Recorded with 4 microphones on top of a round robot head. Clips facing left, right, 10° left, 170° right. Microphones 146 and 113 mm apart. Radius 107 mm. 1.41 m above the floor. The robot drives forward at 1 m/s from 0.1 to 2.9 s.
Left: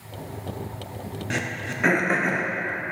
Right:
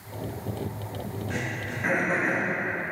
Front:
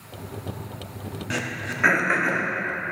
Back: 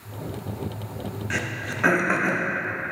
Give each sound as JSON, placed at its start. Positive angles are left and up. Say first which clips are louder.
{"t": 1.3, "sound": "throat clearing", "louder": "left 2 dB, front 4 dB", "azimuth_deg": 75, "distance_m": 0.8}